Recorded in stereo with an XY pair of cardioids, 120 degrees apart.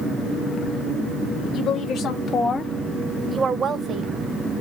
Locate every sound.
1.5 s a woman speaking: 60° left, 1.0 m; by 4.1 s 55° right, 0.9 m